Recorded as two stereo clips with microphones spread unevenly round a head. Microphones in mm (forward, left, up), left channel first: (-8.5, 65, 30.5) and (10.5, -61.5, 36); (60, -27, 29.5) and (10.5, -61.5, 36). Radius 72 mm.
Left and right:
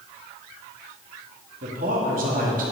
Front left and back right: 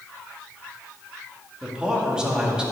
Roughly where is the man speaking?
Ahead right.